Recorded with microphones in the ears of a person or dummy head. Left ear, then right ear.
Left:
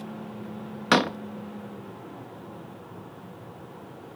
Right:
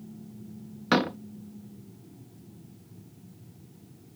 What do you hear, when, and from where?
0.9 s a door slam: 35° left (ahead or behind)